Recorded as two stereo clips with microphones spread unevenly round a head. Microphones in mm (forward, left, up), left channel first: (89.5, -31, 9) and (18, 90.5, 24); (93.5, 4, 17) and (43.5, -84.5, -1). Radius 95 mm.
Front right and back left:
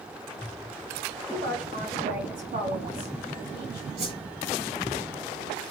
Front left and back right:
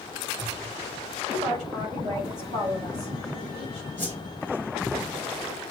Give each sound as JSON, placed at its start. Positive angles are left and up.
{"t": 1.3, "sound": "a woman speaking", "azimuth_deg": 170, "distance_m": 5.5}
{"t": 4.0, "sound": "a whoosh", "azimuth_deg": 160, "distance_m": 4.5}